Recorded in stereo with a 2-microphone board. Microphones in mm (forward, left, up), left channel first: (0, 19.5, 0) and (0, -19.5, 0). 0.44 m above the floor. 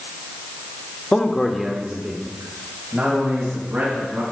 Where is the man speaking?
25° left (ahead or behind), 0.9 m; by 4.2 s 35° right (ahead or behind), 3.5 m.